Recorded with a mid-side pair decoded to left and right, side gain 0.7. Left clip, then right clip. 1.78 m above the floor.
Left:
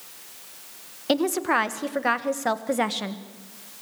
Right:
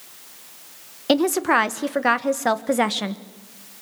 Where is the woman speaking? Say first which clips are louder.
Right 4 dB; 20° right, 1.6 m.